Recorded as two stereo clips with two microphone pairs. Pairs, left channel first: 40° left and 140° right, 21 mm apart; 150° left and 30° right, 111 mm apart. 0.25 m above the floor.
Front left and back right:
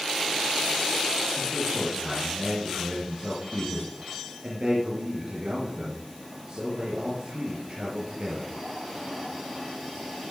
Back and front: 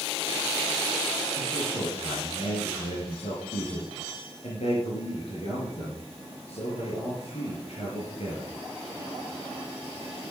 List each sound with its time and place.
1.4 s a man speaking: 175° left, 4.5 m